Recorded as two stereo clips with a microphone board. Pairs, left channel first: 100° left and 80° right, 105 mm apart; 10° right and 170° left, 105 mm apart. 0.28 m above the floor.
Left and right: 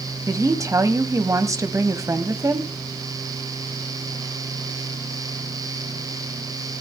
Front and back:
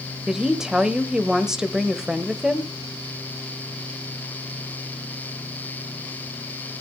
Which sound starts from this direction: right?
A woman speaking, at 0.3 s.